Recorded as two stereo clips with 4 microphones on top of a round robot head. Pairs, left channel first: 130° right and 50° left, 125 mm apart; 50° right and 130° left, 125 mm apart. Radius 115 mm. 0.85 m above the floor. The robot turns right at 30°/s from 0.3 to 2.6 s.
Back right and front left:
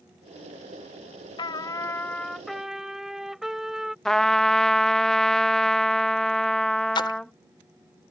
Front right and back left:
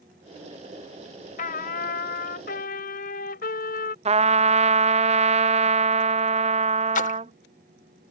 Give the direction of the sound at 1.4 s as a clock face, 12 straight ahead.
2 o'clock.